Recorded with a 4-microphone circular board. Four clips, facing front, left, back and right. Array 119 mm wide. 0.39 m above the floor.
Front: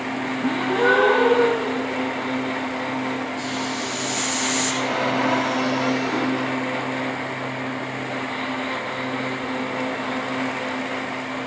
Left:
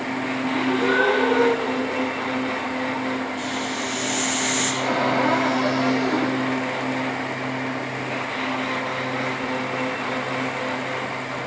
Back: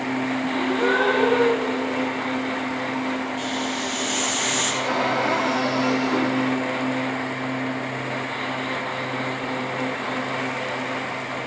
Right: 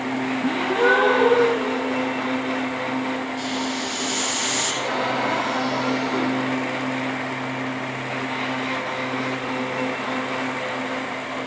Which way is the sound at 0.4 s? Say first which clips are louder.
Right 2 dB, front 4 dB; 35° right.